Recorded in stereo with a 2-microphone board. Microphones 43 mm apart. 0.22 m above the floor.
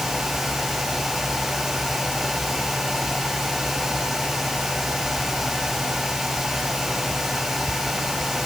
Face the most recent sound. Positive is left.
No sound to turn to.